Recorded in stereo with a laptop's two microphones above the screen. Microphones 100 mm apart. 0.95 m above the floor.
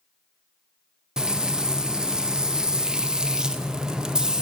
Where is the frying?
5° right (ahead or behind), 0.6 m.